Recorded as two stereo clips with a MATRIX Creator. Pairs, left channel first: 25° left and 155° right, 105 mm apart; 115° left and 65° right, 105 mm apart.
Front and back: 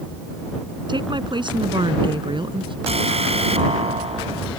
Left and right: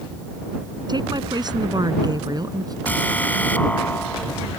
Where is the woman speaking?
115° right; by 2.8 s 120° right.